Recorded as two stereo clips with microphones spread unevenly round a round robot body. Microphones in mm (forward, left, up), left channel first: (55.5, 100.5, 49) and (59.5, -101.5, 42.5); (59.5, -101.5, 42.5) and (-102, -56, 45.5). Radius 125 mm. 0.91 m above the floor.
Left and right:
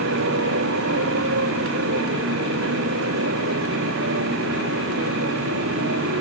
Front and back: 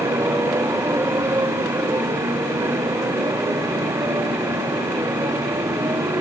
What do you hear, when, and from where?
0.0 s a motorcycle: 120° right